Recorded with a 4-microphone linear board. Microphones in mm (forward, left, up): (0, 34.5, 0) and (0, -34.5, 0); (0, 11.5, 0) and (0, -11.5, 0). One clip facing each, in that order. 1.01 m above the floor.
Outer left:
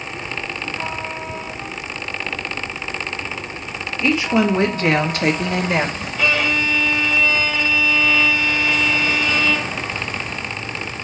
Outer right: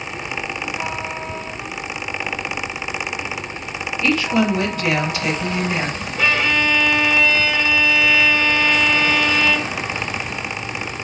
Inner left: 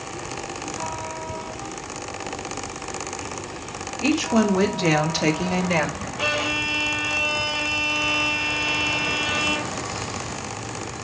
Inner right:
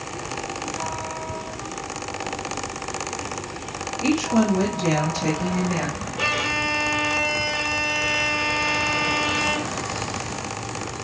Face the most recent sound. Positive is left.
turn(degrees=-30)  # may be behind; listen again after turning